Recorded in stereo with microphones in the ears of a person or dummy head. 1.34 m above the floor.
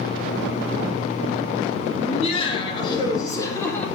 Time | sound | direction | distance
2.0 | laughter | 35° left (ahead or behind) | 2.5 m